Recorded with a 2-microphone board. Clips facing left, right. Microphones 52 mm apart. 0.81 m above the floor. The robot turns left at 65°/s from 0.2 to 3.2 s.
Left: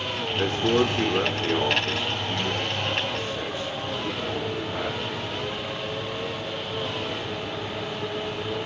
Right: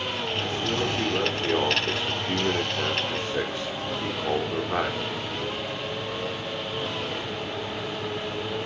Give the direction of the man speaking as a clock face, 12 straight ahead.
10 o'clock.